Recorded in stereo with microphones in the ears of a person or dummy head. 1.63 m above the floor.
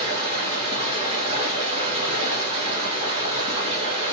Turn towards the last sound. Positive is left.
turn(degrees=-35)  # may be behind; listen again after turning